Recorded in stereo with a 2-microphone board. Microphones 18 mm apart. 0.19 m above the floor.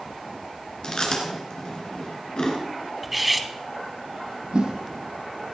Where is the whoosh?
60° right (ahead or behind), 1.4 m.